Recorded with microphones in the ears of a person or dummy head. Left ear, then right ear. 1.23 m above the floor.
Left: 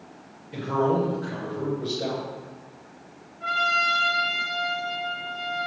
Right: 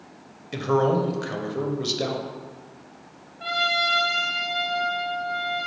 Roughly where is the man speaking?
Right.